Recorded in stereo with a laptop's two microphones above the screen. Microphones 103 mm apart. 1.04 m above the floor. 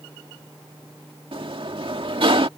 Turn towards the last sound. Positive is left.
turn(degrees=-60)  # may be behind; listen again after turning